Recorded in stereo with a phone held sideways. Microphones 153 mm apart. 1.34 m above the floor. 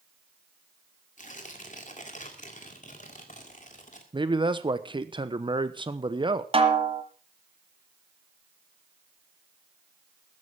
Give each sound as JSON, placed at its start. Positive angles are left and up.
{"t": 1.2, "sound": "tearing paper", "side_deg": 50, "distance_m": 2.0}
{"t": 4.1, "sound": "a man speaking", "side_deg": -30, "distance_m": 1.0}
{"t": 6.5, "sound": "a snare drum", "side_deg": -35, "distance_m": 1.5}